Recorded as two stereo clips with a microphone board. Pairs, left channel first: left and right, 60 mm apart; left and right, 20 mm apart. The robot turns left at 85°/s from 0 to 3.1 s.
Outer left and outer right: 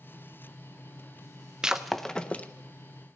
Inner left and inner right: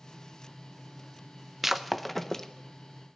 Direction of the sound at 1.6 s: 10° right (ahead or behind).